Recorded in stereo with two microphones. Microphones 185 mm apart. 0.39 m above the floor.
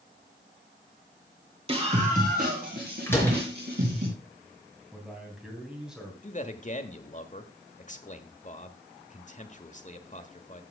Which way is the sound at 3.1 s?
15° left (ahead or behind).